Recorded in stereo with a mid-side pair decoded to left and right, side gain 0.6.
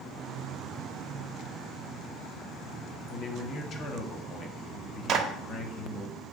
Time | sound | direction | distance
3.1 | a man speaking | 45° left | 0.9 m
5.1 | a clap | 55° right | 0.7 m